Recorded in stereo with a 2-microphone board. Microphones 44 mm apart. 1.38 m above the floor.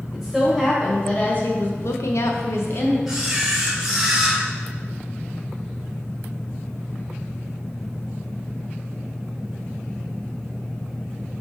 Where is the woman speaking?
5° left (ahead or behind), 1.5 m; by 3.0 s 50° left (ahead or behind), 0.9 m.